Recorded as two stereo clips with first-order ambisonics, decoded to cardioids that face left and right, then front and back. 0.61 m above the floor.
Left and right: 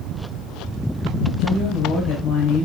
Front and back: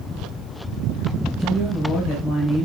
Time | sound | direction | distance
1.4 | a woman speaking | 85° left | 2 m